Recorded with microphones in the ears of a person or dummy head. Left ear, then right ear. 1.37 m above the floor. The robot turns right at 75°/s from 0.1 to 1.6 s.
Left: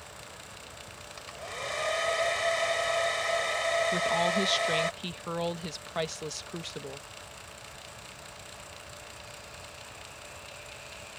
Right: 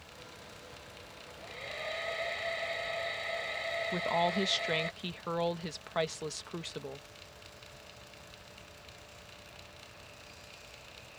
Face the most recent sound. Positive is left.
turn(degrees=-10)  # may be behind; listen again after turning